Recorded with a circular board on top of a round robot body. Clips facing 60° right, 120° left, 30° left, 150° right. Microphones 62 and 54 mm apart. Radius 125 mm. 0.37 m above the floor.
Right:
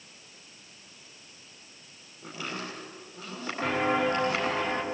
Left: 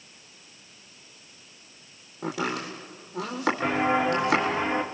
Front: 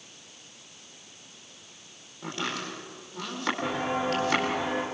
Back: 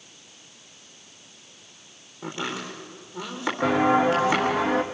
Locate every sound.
2.2 s chopping: 130° left, 4 m
3.6 s footsteps: 160° right, 2.5 m; by 4.8 s 165° right, 3 m